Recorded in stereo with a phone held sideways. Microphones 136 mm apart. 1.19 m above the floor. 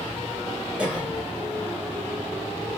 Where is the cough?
10° right (ahead or behind), 1.7 m.